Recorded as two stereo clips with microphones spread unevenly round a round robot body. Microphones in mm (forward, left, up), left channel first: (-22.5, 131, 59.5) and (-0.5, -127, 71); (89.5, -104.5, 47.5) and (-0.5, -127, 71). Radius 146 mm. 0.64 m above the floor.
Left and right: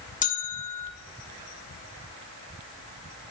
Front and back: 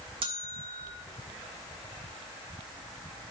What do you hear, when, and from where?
0.2 s a bell: 150° left, 1.2 m